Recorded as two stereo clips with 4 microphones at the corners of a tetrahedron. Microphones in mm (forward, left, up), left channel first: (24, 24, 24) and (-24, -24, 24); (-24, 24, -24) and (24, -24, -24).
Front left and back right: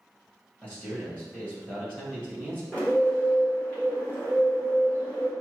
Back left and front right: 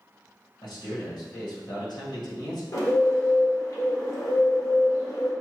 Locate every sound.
0.6 s a man speaking: 115° left, 1.8 m
2.7 s a bird: 105° left, 1.3 m